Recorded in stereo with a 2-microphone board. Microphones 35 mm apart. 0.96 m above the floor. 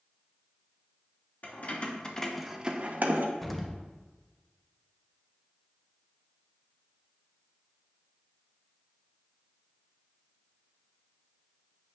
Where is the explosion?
5° left (ahead or behind), 0.6 m.